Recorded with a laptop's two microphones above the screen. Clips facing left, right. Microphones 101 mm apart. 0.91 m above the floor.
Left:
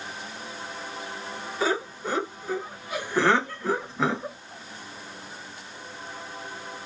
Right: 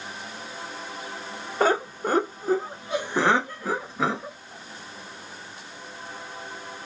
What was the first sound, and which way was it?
Laughter, 55° right (ahead or behind).